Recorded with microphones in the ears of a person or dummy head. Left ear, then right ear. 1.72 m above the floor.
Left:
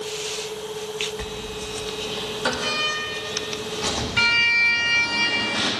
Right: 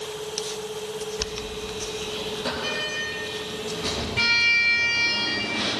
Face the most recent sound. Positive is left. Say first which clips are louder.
# even
turn(degrees=50)  # may be behind; listen again after turning